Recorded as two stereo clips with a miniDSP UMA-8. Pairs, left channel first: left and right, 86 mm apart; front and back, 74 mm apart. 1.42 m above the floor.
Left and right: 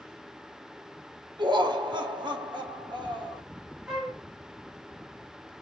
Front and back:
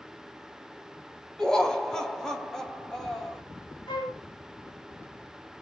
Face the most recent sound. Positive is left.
turn(degrees=-5)